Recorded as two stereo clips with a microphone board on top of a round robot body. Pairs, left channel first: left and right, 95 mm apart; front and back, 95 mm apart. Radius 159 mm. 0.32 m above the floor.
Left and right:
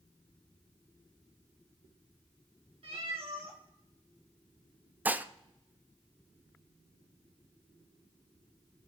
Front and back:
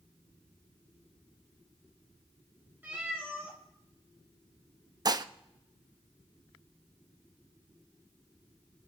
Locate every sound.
2.8 s a cat meowing: 110° right, 3 m
5.0 s dishes clattering: 155° right, 0.8 m